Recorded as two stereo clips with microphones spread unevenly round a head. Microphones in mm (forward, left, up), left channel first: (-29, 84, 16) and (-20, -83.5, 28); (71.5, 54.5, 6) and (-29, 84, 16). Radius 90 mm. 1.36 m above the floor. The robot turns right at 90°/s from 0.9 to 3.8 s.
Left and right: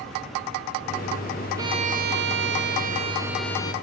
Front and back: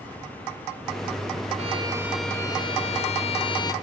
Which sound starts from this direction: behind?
A violin, at 1.6 s.